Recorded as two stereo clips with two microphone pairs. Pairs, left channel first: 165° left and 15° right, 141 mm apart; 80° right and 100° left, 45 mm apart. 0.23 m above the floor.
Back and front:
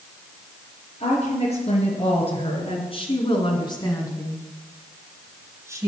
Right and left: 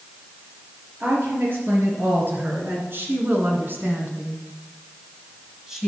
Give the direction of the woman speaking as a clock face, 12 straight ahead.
8 o'clock.